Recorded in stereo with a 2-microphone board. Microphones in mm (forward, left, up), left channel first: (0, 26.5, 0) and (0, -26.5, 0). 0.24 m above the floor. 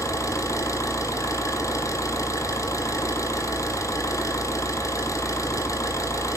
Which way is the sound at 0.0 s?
80° left.